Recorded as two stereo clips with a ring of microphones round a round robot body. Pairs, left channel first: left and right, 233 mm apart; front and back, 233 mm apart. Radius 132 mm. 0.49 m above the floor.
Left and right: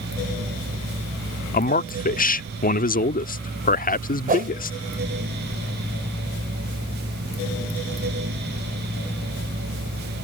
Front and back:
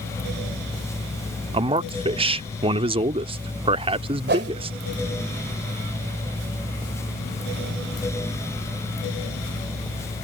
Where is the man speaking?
125° left.